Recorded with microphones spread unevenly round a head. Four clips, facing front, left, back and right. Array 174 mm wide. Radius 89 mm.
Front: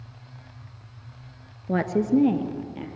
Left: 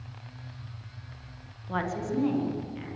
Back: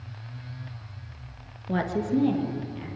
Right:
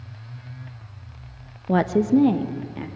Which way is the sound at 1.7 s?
80° right.